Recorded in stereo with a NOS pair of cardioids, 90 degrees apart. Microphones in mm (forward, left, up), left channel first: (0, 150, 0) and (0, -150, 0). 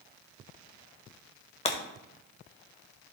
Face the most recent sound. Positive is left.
turn(degrees=20)